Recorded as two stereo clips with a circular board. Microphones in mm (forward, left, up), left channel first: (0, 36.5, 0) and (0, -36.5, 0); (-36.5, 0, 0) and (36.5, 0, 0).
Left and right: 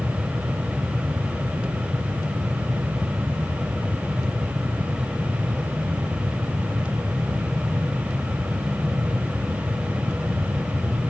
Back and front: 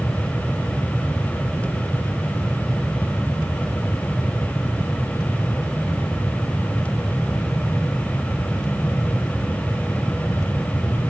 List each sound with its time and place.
Only background noise.